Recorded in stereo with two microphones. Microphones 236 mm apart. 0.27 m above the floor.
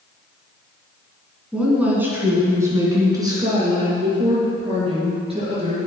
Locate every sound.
1.5 s a woman speaking: 5° right (ahead or behind), 2.5 m; by 5.8 s 25° right (ahead or behind), 4.5 m